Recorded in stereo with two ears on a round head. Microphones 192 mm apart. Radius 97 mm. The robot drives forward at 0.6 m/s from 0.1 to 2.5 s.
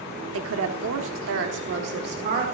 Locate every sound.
0.3 s a woman speaking: 70° right (ahead or behind), 1.4 m; by 2.5 s 50° right (ahead or behind), 1.7 m